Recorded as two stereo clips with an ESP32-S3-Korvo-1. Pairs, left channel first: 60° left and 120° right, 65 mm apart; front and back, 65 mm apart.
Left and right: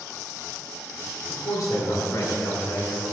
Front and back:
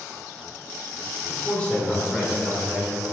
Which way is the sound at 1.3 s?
55° left.